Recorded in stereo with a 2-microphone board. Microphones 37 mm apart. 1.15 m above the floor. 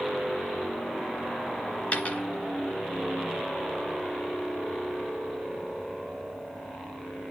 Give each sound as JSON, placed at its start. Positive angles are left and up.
{"t": 1.9, "sound": "a dropped coin", "side_deg": 35, "distance_m": 1.9}